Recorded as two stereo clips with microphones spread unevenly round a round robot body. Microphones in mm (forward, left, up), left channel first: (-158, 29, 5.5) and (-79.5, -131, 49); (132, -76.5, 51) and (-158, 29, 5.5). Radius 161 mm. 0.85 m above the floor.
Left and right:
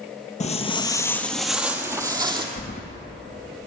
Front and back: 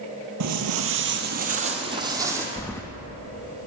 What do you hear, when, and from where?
0.4 s footsteps: 165° left, 1.0 m; by 2.5 s 115° right, 1.5 m
2.6 s keys jangling: 65° left, 0.5 m